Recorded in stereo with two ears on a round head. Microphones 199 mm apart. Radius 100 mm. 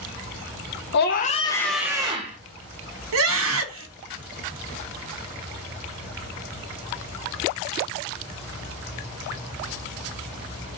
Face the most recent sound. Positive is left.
turn(degrees=-60)  # may be behind; listen again after turning